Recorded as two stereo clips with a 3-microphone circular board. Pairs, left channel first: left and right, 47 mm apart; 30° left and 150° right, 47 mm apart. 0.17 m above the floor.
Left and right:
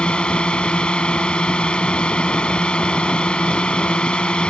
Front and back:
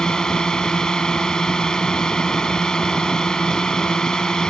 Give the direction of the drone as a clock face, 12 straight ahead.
9 o'clock.